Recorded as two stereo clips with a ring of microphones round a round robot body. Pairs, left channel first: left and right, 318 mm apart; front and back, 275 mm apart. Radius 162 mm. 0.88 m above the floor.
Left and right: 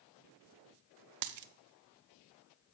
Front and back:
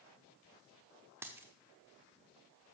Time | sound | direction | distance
1.2 | a dropped coin | 100° right | 0.5 m